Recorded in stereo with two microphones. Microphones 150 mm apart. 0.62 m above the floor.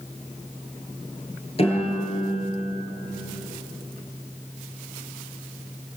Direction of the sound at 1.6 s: 40° left (ahead or behind).